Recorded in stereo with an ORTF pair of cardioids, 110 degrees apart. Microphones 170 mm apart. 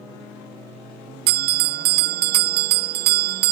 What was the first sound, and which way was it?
A bell, 70° right.